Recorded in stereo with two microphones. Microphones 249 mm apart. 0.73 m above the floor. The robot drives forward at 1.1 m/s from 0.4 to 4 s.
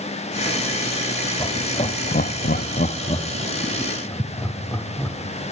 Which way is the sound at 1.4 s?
20° left (ahead or behind).